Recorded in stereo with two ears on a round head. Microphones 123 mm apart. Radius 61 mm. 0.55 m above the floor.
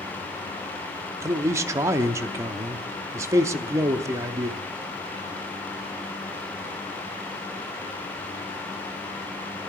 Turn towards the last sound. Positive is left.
turn(degrees=-20)  # may be behind; listen again after turning